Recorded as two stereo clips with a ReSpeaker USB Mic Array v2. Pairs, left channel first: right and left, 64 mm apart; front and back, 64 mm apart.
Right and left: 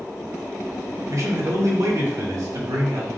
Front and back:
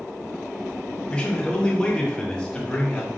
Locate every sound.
1.1 s a man speaking: 75° left, 1.3 m